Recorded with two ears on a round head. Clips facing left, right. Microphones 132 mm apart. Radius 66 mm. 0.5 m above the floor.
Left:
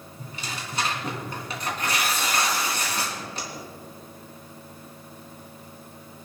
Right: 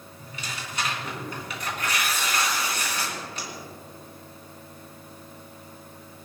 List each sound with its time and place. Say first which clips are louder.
0.2 s tearing paper: left 2 dB; 30° left (ahead or behind), 3 m